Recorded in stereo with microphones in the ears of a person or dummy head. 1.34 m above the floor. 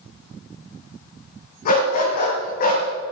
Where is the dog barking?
50° left (ahead or behind), 3 m.